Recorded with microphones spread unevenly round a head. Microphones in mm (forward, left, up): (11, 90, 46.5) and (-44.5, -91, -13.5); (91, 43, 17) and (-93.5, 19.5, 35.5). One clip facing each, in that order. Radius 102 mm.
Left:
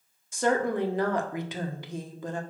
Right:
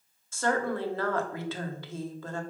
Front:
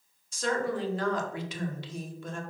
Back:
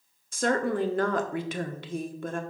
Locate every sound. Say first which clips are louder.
0.3 s a woman speaking: left 3 dB, back 4 dB; 145° left, 1.1 m